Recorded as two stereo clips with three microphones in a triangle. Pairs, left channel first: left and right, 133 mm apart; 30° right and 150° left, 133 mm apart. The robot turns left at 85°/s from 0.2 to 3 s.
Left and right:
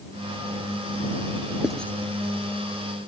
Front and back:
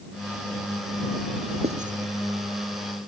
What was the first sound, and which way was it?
Writing, 175° right.